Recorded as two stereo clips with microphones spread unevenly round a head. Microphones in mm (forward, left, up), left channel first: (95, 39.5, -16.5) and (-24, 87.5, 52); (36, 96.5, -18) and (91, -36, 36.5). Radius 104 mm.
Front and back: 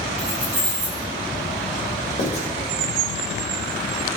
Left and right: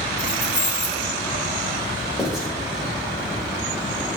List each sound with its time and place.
0.2 s keys jangling: 135° right, 3 m
2.2 s writing: 20° left, 2 m